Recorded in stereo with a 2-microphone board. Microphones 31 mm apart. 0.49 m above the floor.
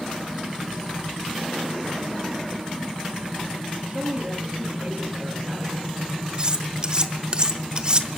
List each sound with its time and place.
3.9 s a man speaking: 45° right (ahead or behind), 8.5 m
6.4 s cutlery clinking: 30° right (ahead or behind), 1.1 m